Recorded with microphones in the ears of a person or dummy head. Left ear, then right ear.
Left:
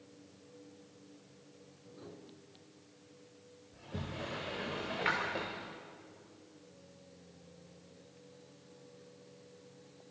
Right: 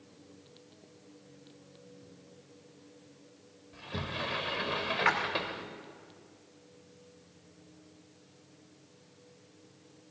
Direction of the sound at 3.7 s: 20° right (ahead or behind).